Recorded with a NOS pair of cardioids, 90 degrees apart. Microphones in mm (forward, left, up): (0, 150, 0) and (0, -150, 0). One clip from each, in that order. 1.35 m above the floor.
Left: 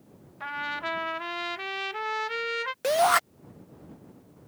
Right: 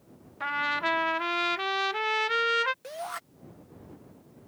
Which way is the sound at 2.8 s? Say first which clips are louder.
Left 15 dB; 70° left.